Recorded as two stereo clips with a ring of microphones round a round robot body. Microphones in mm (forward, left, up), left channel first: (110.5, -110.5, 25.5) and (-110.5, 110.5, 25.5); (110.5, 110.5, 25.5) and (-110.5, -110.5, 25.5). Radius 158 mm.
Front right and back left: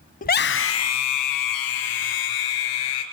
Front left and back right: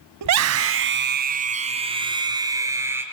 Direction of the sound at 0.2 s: 110° right.